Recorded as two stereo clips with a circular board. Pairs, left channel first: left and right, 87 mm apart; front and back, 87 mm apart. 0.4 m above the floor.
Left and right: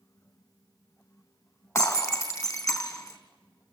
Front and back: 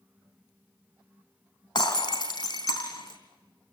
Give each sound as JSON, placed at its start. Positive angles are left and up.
{"t": 1.8, "sound": "breaking glass", "azimuth_deg": 35, "distance_m": 3.0}